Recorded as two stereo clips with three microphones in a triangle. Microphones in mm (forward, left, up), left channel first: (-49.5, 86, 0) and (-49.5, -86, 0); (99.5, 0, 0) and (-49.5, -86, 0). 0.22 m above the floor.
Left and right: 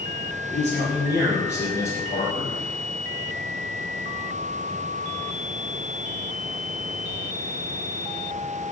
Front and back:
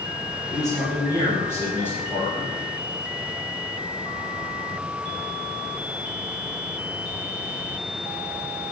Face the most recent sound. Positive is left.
turn(degrees=115)